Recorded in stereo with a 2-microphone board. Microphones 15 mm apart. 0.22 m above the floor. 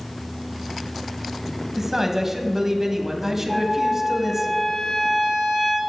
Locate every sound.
1.8 s a man speaking: 20° right (ahead or behind), 1.1 m
3.5 s a trumpet: 45° left (ahead or behind), 3.5 m